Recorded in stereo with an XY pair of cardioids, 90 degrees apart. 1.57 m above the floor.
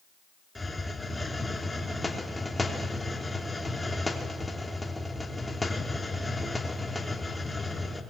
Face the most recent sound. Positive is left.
turn(degrees=15)